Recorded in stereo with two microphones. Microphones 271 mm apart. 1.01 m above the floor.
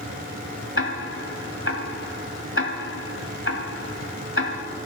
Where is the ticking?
50° left (ahead or behind), 1.3 m.